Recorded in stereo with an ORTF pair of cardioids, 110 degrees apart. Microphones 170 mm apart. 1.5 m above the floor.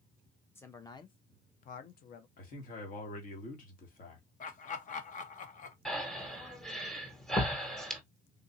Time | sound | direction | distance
0.6 | a man speaking | 15° left | 1.0 m
2.4 | a man speaking | 55° left | 1.9 m
4.4 | laughter | 50° left | 1.1 m
5.8 | breathing | 5° left | 1.3 m